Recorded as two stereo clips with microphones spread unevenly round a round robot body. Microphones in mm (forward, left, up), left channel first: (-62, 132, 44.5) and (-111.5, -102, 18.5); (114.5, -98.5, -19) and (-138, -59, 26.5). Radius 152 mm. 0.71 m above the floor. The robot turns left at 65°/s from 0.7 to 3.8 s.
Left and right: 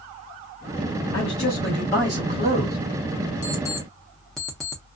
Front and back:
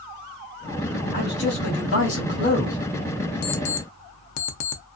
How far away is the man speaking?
About 1.5 m.